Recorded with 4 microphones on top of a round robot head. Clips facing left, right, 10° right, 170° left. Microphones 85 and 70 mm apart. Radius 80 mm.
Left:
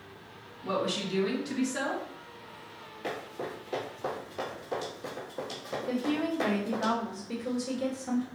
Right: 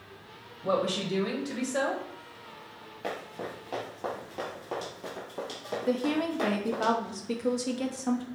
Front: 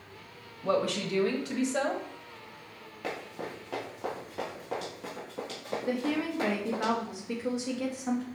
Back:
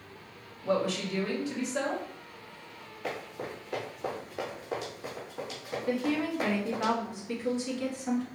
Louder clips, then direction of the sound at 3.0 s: Even, even; 40° right.